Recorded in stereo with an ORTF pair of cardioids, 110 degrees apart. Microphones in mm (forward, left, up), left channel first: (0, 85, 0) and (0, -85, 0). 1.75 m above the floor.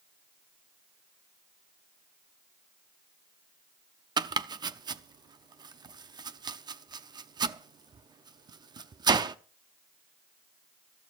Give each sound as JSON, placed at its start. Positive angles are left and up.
{"t": 4.2, "sound": "chopping", "azimuth_deg": -25, "distance_m": 0.8}